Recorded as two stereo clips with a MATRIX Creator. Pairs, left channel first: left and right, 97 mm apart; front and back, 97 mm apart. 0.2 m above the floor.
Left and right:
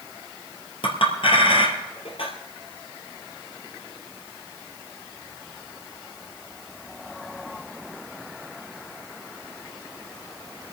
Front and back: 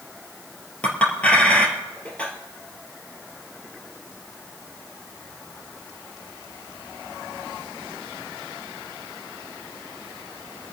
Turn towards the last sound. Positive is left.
turn(degrees=75)